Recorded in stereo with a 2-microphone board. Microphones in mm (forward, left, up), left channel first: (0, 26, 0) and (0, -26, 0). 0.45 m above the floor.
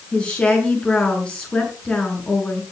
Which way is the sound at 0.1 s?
20° left (ahead or behind).